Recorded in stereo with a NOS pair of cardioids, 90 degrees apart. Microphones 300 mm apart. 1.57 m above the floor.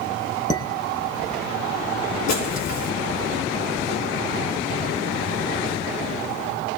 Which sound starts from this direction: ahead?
Dishes clattering, at 0.5 s.